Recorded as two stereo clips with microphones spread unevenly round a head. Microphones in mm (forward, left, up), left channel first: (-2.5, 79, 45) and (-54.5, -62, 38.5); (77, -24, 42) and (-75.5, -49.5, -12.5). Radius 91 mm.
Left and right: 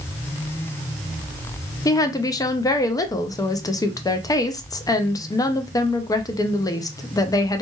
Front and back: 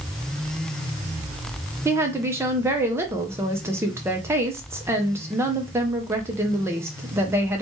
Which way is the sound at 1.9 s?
135° left.